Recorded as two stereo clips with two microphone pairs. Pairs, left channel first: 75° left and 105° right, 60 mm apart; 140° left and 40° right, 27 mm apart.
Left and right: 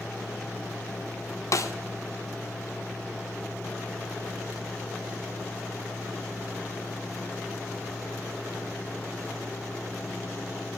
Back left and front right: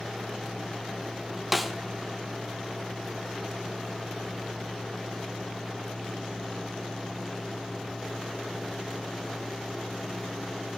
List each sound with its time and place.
1.5 s a snare drum: 50° left, 1.1 m